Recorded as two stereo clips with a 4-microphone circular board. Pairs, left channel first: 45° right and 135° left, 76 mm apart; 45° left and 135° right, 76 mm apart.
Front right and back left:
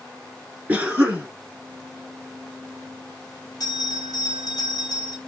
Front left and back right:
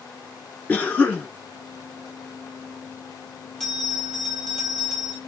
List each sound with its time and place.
0.7 s a cough: 90° left, 1.2 m
3.6 s a bell: 40° right, 1.5 m